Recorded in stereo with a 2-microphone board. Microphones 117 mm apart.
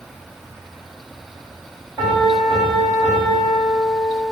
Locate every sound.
2.0 s a piano: 20° right (ahead or behind), 1.3 m